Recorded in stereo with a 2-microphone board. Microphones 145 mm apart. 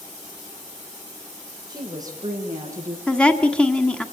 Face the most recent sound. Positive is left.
turn(degrees=5)  # may be behind; listen again after turning